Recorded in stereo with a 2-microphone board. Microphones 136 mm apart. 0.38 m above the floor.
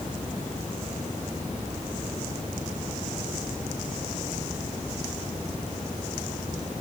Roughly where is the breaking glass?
No breaking glass in this recording.